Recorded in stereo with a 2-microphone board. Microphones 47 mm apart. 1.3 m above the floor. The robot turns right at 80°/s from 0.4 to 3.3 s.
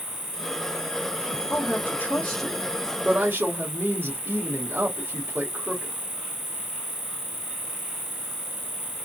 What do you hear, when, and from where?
0.0 s an insect: 75° left, 1.7 m; by 9.1 s 55° right, 1.7 m
1.5 s a woman speaking: 90° left, 1.6 m; by 5.9 s 130° right, 1.6 m